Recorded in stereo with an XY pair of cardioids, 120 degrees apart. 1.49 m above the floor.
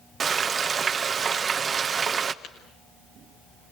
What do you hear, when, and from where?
0.2 s frying: 35° right, 1.5 m
2.4 s tapping: 70° left, 5.5 m